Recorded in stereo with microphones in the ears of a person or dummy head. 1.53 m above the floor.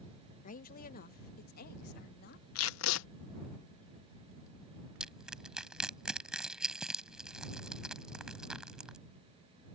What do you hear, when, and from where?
0.4 s a woman speaking: 45° left (ahead or behind); by 2.5 s 60° left (ahead or behind)
2.5 s tape being pulled: 85° left
5.0 s crushing: centre (ahead or behind)